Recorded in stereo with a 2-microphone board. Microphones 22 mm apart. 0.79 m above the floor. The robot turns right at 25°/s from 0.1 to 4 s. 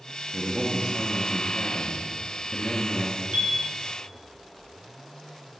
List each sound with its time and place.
0.3 s a man speaking: 140° right, 0.8 m; by 3.2 s 70° right, 0.8 m
3.3 s a chime: 75° right (ahead or behind), 1.3 m